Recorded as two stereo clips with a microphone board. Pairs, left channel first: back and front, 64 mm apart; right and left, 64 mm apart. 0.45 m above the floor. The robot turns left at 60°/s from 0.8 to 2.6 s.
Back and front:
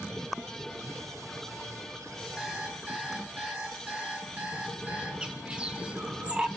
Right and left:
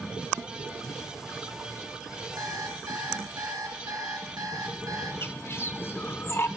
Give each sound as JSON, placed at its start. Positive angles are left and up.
{"t": 2.4, "sound": "an alarm clock", "azimuth_deg": 80, "distance_m": 3.0}
{"t": 5.2, "sound": "a bird", "azimuth_deg": -65, "distance_m": 0.8}